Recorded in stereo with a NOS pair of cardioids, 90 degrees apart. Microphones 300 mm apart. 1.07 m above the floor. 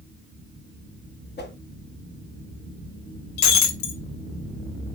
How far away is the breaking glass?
About 1.4 m.